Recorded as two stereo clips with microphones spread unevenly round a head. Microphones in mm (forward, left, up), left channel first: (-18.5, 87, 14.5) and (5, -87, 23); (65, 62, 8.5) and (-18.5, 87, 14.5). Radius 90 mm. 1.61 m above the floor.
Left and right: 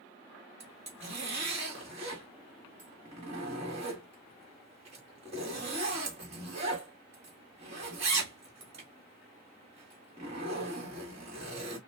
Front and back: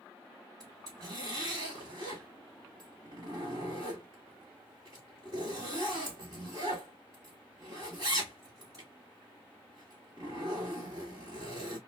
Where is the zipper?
130° right, 1.9 m.